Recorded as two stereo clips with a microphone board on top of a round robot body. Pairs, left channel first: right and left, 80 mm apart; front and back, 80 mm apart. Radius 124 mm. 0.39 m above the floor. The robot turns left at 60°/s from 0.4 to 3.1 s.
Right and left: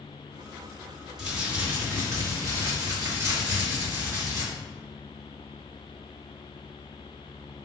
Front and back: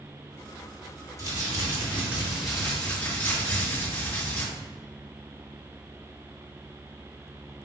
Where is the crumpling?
165° left, 1.8 m; by 4.4 s 55° left, 1.8 m.